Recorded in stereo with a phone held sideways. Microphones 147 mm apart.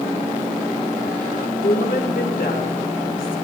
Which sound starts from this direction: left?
A woman speaking, at 1.6 s.